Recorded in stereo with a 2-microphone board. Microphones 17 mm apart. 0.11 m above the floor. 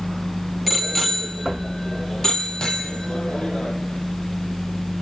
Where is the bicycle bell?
5° right (ahead or behind), 2.5 m; by 3.8 s 50° left (ahead or behind), 3 m.